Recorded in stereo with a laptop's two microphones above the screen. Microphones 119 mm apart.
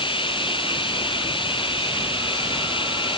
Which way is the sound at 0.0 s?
45° left (ahead or behind).